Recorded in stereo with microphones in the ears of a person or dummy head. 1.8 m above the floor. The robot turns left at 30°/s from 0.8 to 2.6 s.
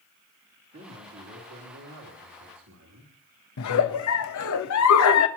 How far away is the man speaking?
About 3 m.